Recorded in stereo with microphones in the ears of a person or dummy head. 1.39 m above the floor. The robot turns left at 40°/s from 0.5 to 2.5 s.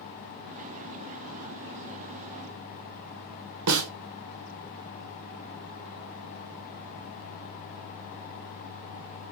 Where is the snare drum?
75° right (ahead or behind), 0.9 m.